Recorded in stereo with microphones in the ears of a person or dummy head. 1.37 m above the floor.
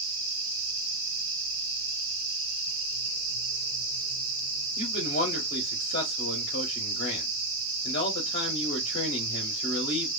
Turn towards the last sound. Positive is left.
turn(degrees=40)  # may be behind; listen again after turning